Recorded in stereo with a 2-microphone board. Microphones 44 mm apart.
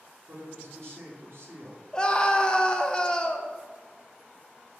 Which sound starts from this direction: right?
A woman speaking, at 0.3 s.